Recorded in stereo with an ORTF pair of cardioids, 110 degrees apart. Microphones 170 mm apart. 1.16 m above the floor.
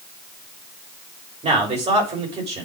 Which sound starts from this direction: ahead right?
A man speaking, at 1.4 s.